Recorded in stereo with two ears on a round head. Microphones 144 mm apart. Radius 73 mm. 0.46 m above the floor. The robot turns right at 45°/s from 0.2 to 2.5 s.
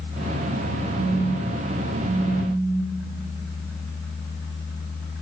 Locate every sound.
1.0 s a phone buzzing: 90° right, 7 m; by 3.0 s 20° right, 7 m